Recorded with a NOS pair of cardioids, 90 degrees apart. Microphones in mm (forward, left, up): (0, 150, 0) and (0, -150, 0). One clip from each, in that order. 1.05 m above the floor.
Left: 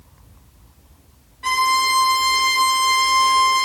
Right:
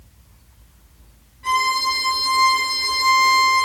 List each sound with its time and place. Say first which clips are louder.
1.4 s a violin: left 2 dB; 50° left, 0.9 m